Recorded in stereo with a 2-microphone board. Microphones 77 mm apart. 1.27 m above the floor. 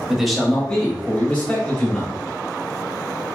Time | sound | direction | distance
0.1 | a man speaking | 5° right (ahead or behind) | 0.9 m